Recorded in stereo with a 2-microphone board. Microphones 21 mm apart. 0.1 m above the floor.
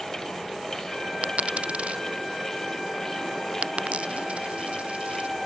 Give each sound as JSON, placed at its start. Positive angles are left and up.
{"t": 1.2, "sound": "a dropped coin", "side_deg": -85}